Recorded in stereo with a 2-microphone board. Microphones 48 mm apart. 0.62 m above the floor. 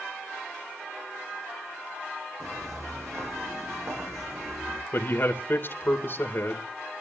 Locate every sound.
2.4 s footsteps: 65° right (ahead or behind), 3.5 m
4.9 s a man speaking: 45° left (ahead or behind), 2.5 m